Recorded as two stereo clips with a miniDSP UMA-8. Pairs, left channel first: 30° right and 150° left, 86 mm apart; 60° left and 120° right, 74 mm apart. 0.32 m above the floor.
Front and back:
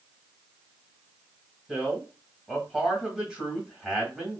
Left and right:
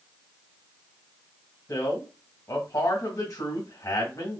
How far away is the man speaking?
About 1.7 m.